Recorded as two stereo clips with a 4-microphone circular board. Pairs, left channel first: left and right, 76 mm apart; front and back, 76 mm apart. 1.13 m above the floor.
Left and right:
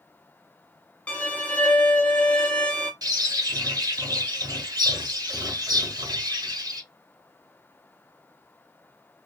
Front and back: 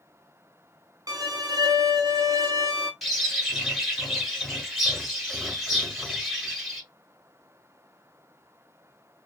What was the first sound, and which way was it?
A violin, 160° left.